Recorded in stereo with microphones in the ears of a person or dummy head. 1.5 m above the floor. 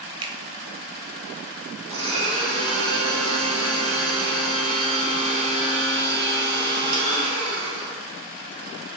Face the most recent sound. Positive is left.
turn(degrees=-35)  # may be behind; listen again after turning